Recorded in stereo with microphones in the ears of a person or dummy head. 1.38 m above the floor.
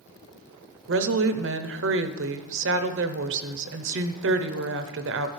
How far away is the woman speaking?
About 0.7 m.